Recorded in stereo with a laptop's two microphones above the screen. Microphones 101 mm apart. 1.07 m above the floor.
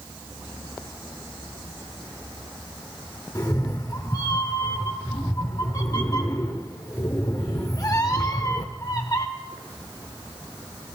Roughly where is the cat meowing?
Left.